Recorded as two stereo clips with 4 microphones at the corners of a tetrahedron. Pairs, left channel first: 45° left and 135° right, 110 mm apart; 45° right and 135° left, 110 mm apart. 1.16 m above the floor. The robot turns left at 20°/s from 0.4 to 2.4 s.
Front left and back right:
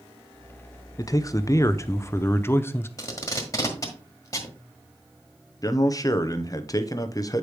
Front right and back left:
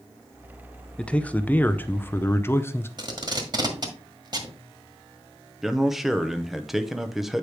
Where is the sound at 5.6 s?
50° left, 0.6 m.